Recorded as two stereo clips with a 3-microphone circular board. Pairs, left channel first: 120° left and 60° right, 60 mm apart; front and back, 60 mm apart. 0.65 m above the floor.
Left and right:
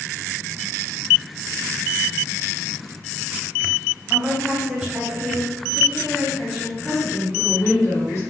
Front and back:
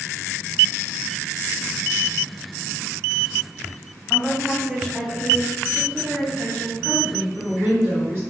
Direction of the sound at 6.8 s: 145° left.